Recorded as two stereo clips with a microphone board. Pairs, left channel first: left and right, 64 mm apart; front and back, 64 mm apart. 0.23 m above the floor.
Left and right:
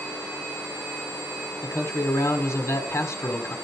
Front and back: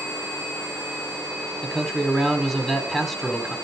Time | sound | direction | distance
1.6 | a man speaking | 85° left | 1.7 m